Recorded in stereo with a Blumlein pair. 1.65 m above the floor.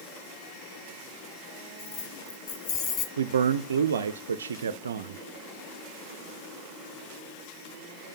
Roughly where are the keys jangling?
Ahead left.